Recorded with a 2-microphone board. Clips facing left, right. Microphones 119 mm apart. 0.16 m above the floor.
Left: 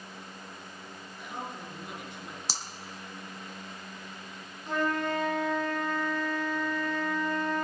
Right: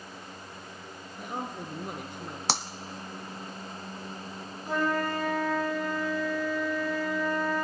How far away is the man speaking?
About 2.5 m.